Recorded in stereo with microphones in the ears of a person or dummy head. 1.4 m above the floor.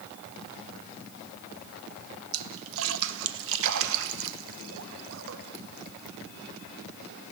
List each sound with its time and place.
2.3 s a splash: 80° right, 1.1 m